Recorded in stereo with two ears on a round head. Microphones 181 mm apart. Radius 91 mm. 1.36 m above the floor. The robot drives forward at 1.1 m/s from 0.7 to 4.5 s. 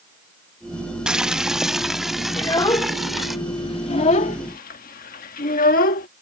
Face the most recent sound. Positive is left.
turn(degrees=45)  # may be behind; listen again after turning